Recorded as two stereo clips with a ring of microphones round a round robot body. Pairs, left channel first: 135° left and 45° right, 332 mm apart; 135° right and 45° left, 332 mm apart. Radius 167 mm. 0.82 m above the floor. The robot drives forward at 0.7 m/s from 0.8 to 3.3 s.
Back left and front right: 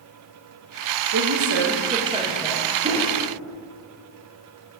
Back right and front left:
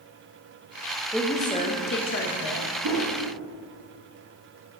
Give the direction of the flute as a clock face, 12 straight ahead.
I don't hear a flute.